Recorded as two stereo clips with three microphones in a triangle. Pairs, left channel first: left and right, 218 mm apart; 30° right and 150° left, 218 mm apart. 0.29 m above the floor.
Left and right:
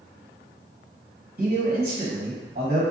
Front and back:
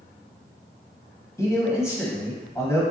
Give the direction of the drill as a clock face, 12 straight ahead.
No drill in this recording.